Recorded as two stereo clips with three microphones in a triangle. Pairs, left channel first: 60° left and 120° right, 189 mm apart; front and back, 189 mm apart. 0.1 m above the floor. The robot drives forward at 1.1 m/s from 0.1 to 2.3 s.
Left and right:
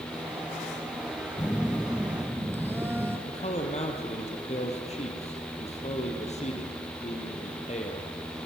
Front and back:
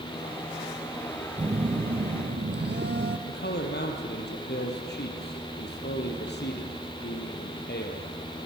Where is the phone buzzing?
125° left, 0.7 m; by 3.2 s 160° left, 1.5 m.